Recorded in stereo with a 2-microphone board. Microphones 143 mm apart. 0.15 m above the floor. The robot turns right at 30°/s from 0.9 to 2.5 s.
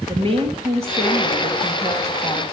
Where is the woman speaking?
60° right, 2 m; by 2.4 s 15° right, 2 m.